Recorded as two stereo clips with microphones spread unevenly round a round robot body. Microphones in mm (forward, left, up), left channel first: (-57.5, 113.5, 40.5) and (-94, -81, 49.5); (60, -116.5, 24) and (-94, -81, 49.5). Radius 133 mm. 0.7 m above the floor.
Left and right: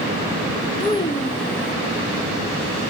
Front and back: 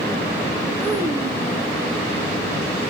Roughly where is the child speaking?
Left.